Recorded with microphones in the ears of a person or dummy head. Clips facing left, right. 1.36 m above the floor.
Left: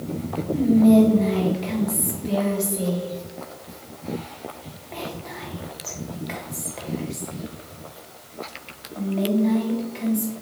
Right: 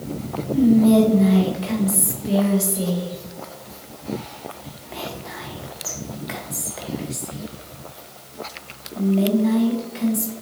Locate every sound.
0.5 s whispering: 5° right (ahead or behind), 0.9 m